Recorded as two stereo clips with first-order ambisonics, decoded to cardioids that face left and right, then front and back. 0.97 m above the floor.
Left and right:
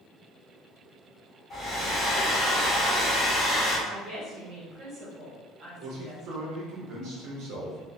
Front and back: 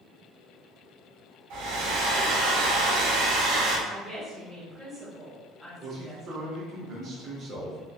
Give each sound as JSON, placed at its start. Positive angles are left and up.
{"t": 1.5, "sound": "a hair dryer", "azimuth_deg": 165, "distance_m": 0.8}
{"t": 3.9, "sound": "a woman speaking", "azimuth_deg": -80, "distance_m": 0.8}
{"t": 5.8, "sound": "a man speaking", "azimuth_deg": -125, "distance_m": 0.7}